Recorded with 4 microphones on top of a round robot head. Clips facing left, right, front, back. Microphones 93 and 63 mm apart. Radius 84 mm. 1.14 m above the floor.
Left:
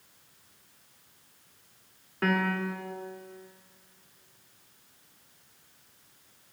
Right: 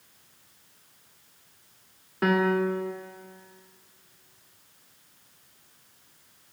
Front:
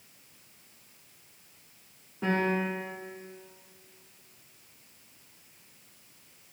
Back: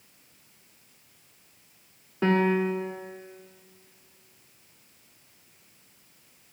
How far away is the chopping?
I don't hear chopping.